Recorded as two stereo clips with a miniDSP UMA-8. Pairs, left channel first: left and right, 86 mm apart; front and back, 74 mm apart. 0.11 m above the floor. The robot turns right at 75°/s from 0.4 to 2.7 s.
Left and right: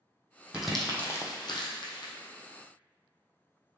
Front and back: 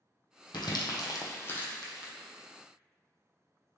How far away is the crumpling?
About 0.8 m.